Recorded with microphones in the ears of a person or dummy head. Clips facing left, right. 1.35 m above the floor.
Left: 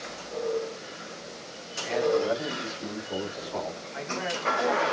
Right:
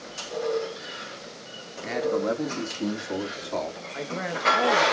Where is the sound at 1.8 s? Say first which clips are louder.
Left 1 dB; 55° right (ahead or behind), 1.7 m; by 3.8 s 80° right, 3 m.